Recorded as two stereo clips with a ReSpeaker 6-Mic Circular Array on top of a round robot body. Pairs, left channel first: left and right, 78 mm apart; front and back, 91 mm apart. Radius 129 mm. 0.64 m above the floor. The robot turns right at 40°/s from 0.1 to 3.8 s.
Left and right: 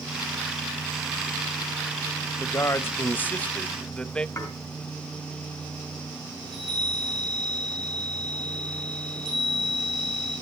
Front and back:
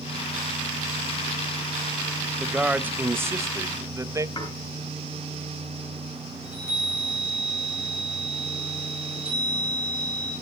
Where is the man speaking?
105° left, 0.9 m; by 4.3 s 160° left, 0.9 m.